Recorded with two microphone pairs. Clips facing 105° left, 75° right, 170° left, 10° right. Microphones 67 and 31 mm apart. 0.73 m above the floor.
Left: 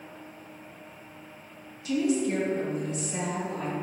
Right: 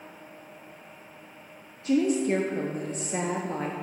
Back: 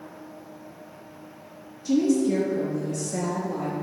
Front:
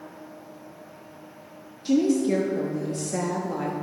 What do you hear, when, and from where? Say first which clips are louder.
1.9 s a woman speaking: right 2 dB, even; 45° right, 0.6 m